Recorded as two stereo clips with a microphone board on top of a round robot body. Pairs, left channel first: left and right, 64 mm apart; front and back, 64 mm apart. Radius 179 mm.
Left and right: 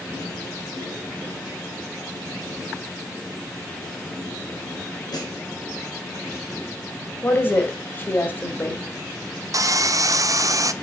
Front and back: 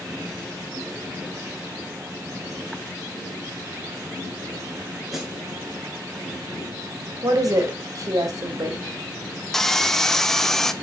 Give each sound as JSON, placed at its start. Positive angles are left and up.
{"t": 5.1, "sound": "a snare drum", "azimuth_deg": 95, "distance_m": 3.5}
{"t": 7.2, "sound": "a woman speaking", "azimuth_deg": 150, "distance_m": 2.5}
{"t": 9.5, "sound": "sawing", "azimuth_deg": -85, "distance_m": 0.9}